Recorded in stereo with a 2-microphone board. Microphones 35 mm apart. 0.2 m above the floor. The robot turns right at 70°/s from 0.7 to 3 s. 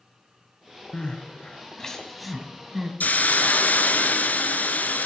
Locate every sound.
0.9 s crying: 30° left (ahead or behind), 1.2 m; by 2.9 s 20° right (ahead or behind), 1.2 m
3.0 s a hiss: 50° left (ahead or behind), 0.9 m